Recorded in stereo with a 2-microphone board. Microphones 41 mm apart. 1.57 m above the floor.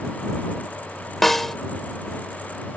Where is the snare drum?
5° left (ahead or behind).